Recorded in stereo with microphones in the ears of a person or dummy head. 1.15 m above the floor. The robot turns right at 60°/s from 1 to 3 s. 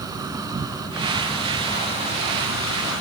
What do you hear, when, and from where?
0.0 s an insect: 20° right; by 3.0 s 100° left